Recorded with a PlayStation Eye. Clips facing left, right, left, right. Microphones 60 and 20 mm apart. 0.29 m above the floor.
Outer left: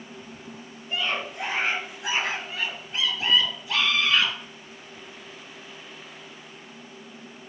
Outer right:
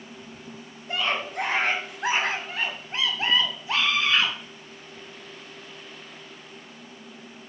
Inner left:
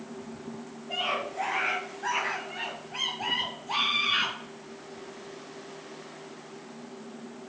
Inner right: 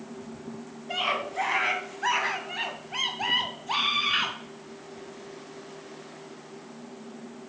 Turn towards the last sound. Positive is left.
turn(degrees=-25)  # may be behind; listen again after turning